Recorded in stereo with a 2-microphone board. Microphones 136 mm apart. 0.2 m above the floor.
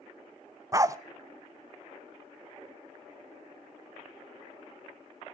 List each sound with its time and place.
0.7 s a dog barking: 25° right (ahead or behind), 0.5 m